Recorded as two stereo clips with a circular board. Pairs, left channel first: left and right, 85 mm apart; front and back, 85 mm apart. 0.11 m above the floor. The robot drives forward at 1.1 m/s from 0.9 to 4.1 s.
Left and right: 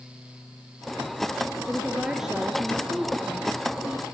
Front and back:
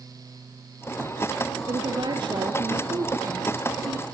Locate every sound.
1.7 s a woman speaking: 175° right, 2 m